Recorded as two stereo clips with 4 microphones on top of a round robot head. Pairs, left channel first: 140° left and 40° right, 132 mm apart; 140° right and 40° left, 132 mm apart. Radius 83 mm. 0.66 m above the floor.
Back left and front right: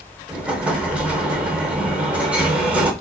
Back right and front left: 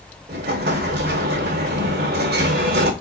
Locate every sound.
0.3 s an explosion: 40° left, 0.5 m